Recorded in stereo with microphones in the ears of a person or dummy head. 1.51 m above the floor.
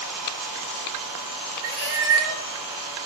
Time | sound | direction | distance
1.6 | a cat meowing | 70° right (ahead or behind) | 5 m